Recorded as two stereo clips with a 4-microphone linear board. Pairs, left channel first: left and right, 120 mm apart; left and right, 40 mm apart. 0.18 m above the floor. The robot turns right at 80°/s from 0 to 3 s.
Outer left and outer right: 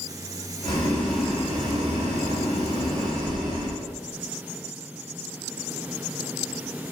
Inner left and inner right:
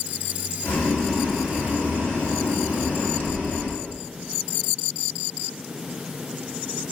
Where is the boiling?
135° left, 1.4 m; by 3.8 s 35° right, 1.4 m.